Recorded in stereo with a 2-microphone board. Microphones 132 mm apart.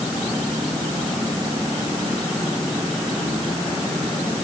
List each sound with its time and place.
Only background noise.